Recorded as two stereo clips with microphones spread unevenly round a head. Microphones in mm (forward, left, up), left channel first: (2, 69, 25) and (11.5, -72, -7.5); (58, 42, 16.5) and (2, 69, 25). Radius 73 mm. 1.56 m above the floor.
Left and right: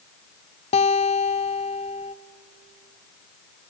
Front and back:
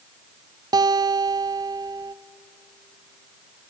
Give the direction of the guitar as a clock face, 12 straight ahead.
7 o'clock.